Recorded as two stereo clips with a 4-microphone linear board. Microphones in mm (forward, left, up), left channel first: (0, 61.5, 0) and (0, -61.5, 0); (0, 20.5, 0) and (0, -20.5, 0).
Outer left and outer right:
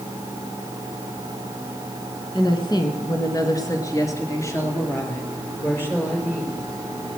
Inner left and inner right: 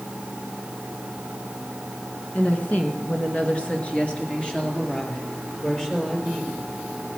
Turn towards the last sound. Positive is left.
turn(degrees=15)  # may be behind; listen again after turning